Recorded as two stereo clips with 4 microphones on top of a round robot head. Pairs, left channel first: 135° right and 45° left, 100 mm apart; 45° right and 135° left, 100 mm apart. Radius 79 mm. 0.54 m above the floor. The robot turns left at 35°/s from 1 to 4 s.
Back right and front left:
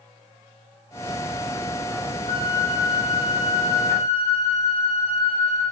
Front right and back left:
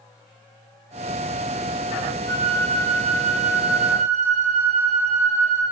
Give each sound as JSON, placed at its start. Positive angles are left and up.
{"t": 2.3, "sound": "a flute", "azimuth_deg": -95, "distance_m": 2.0}